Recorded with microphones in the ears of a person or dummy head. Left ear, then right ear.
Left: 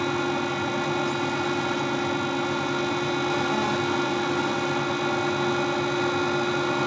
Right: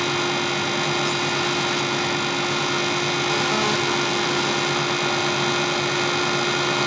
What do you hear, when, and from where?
0.0 s a fan: 75° right (ahead or behind), 0.9 m